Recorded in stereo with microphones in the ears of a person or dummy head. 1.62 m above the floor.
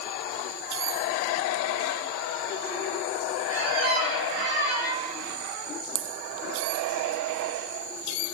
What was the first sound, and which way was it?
A squeak, 50° right (ahead or behind).